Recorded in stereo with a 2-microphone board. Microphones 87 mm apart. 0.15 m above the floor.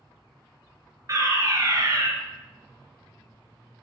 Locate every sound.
1.1 s a fire alarm: 40° right (ahead or behind), 3.5 m